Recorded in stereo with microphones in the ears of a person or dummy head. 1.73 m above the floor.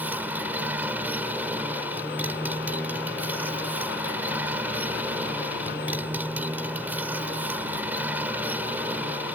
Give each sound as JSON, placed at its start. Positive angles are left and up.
{"t": 0.0, "sound": "a motorcycle", "side_deg": -10}